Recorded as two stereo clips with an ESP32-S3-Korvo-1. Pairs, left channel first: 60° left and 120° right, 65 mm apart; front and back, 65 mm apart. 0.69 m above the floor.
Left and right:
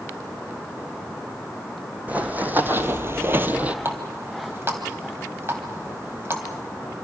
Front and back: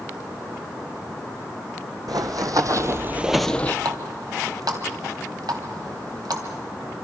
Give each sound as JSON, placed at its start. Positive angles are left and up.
{"t": 2.1, "sound": "running footsteps", "azimuth_deg": 175, "distance_m": 1.9}
{"t": 3.9, "sound": "a running tap", "azimuth_deg": -170, "distance_m": 2.5}